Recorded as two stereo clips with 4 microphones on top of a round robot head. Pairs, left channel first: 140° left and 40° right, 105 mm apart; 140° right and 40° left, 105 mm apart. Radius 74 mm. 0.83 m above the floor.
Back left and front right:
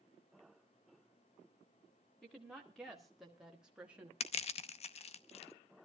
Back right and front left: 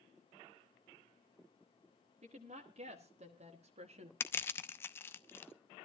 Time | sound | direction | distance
2.2 | a woman speaking | 55° left | 2.5 m
4.2 | crushing | 150° left | 0.8 m